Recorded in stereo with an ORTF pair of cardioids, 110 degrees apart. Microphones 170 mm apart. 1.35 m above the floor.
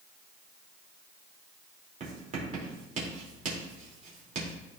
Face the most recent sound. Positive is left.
turn(degrees=-45)